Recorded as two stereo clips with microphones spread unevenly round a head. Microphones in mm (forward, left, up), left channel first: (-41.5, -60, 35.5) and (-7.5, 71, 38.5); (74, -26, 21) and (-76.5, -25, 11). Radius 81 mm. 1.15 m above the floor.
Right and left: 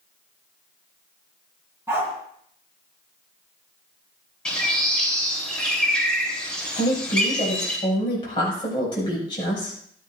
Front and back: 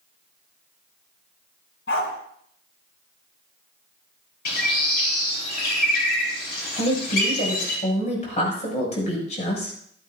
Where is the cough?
I don't hear a cough.